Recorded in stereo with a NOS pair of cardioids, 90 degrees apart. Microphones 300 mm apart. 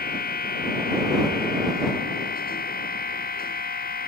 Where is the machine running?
30° left.